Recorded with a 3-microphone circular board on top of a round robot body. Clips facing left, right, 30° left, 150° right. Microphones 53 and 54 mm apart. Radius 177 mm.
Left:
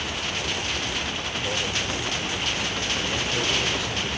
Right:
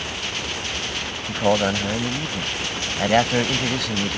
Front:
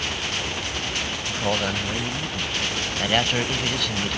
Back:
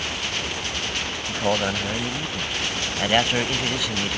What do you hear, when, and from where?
1.3 s a man speaking: 70° right